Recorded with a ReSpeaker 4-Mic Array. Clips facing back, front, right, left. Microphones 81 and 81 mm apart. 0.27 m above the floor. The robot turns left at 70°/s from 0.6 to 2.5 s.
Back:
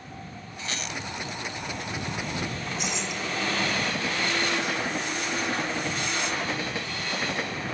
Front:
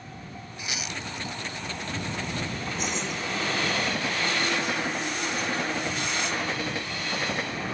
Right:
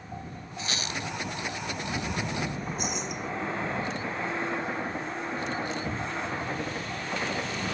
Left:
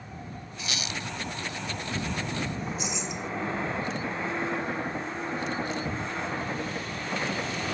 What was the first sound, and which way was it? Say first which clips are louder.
A squeak: back 1 dB, right 2 dB; 65° right.